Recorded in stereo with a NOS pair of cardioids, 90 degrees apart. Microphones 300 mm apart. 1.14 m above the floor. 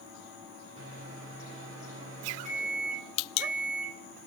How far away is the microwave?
About 3.5 m.